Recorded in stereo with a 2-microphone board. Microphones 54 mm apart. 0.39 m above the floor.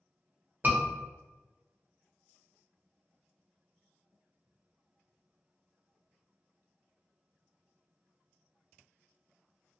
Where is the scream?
35° right (ahead or behind), 1.0 m.